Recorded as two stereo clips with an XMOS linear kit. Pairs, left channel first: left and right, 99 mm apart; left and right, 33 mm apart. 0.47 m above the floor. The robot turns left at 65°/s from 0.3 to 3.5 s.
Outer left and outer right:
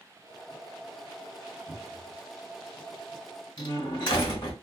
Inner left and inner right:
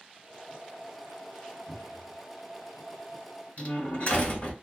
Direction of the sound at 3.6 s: 50° left (ahead or behind).